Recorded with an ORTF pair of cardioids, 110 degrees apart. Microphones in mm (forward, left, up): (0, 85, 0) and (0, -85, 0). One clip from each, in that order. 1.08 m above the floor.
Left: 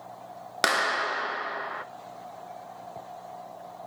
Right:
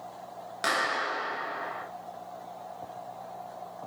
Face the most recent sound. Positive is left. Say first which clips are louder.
# left 3 dB
turn(degrees=65)